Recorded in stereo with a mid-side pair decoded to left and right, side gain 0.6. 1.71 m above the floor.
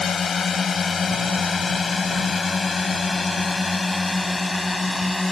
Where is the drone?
30° left; by 5.3 s 5° left.